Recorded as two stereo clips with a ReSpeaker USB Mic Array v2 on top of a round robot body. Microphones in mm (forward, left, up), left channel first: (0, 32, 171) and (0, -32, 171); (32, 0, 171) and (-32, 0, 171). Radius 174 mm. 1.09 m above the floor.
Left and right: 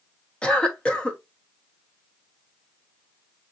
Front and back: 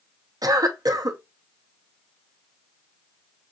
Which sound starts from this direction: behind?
A cough, at 0.4 s.